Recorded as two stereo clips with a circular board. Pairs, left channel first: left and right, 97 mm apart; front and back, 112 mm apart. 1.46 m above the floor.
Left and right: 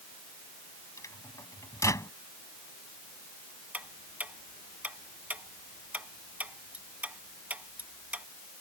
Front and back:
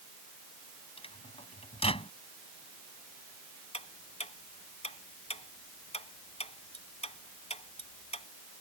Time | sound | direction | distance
1.0 | a microwave | 30° left | ?
3.7 | ticking | 15° right | ?